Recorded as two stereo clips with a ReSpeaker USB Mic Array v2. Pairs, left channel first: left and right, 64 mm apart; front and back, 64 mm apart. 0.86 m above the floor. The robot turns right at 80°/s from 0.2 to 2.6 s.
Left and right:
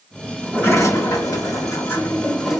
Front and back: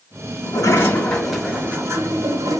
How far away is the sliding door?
About 1.4 m.